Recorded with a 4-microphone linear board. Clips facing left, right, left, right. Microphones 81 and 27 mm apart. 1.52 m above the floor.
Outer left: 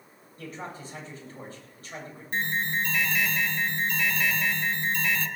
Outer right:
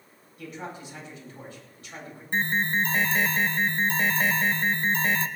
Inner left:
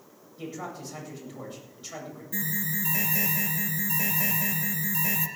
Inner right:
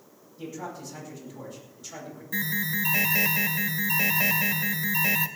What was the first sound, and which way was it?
A man speaking, 40° left (ahead or behind).